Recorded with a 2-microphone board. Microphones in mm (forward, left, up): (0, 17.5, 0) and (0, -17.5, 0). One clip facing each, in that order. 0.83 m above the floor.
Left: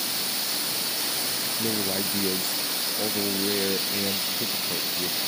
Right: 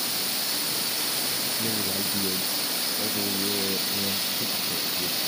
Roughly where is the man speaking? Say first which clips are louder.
Left 4 dB; left.